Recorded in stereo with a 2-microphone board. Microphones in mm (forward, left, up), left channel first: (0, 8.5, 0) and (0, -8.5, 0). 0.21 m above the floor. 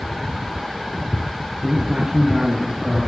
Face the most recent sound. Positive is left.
turn(degrees=-55)  # may be behind; listen again after turning